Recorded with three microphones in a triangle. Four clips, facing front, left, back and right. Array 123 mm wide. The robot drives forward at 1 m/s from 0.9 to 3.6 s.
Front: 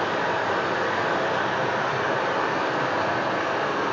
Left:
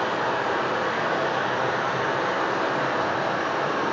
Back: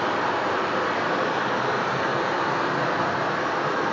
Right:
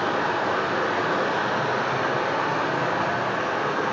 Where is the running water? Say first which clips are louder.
Right 1 dB, back 1 dB; 110° right, 2.5 m; by 3.9 s 145° right, 4.5 m.